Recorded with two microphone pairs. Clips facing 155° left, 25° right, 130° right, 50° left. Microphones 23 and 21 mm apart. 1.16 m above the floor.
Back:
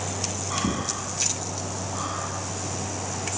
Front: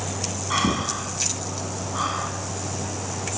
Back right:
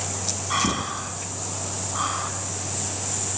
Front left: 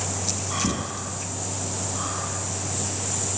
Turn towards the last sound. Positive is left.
turn(degrees=-80)